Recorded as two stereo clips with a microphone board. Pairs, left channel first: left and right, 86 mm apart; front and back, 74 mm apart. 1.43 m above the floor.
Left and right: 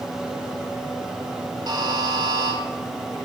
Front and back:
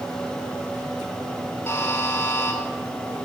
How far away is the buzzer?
About 2.5 m.